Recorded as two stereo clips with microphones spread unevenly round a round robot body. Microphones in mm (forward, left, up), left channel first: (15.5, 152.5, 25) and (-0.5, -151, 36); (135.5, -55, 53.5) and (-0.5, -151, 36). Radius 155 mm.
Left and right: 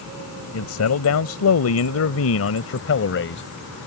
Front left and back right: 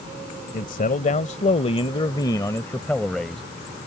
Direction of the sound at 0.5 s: 65° left.